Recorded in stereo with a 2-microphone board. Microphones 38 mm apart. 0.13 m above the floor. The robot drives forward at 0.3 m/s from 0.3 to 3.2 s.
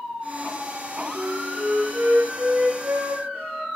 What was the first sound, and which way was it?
A flute, 65° right (ahead or behind).